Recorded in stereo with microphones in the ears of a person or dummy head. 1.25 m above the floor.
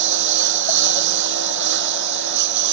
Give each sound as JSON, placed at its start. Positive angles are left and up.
{"t": 0.0, "sound": "a lawn mower", "side_deg": -65}